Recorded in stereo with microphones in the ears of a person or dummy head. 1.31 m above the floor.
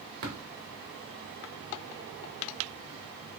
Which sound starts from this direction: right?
Tapping, at 0.2 s.